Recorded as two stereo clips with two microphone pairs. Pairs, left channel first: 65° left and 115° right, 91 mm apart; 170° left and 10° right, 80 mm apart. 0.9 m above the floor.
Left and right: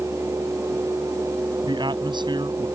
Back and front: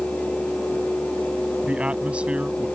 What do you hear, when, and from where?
1.7 s a man speaking: 85° right